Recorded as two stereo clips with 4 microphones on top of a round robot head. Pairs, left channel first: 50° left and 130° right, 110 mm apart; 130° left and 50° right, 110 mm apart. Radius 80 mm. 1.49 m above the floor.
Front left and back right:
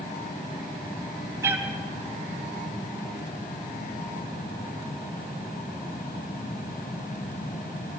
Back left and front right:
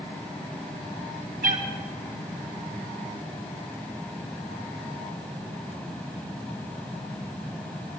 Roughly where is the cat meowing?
Ahead right.